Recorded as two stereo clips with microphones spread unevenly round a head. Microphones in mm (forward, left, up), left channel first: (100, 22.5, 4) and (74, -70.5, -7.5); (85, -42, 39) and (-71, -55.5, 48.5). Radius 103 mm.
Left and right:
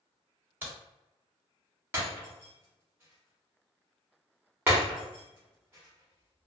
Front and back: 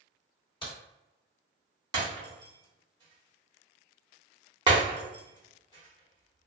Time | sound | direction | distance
0.6 | a crack | 40° right | 1.8 m
1.9 | breaking glass | 165° right | 0.9 m